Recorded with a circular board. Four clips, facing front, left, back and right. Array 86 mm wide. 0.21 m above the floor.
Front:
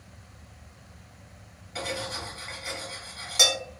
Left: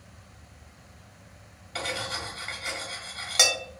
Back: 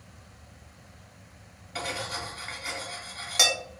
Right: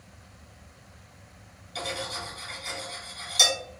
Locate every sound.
1.8 s cutlery clinking: 110° left, 0.9 m